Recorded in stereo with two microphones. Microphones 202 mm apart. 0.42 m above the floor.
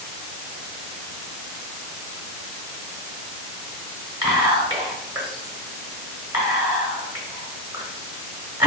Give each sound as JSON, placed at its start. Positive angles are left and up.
{"t": 4.2, "sound": "whispering", "side_deg": -25, "distance_m": 0.8}